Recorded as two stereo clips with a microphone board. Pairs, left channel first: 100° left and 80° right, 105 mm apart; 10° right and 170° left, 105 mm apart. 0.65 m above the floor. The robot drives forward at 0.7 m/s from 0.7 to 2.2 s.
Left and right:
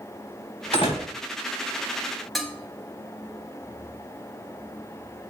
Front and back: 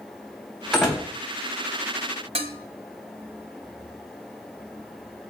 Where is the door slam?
85° left, 3 m.